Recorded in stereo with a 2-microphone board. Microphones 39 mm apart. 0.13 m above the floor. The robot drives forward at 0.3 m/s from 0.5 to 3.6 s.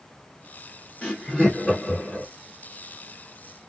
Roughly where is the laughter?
Centre.